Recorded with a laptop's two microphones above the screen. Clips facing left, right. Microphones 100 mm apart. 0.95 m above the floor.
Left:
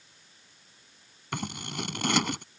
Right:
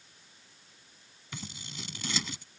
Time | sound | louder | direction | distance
1.3 | scissors | left 10 dB | 70° left (ahead or behind) | ?